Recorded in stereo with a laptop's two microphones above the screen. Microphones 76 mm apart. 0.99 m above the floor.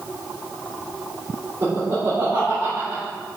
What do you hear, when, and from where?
1.6 s laughter: 30° right (ahead or behind), 3 m; by 3.0 s 40° right (ahead or behind), 1.8 m